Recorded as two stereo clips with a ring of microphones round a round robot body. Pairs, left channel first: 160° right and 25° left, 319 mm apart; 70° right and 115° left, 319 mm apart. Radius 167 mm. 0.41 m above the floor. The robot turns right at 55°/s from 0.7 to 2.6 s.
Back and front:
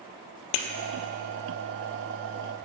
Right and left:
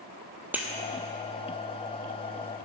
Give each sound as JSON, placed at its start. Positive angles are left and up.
{"t": 0.5, "sound": "breaking glass", "azimuth_deg": -165, "distance_m": 1.2}